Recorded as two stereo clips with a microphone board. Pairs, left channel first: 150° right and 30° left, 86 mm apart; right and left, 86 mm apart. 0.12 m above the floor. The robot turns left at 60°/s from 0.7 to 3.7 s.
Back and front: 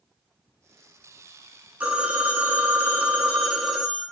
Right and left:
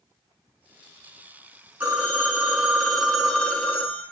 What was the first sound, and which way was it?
A phone ringing, 70° left.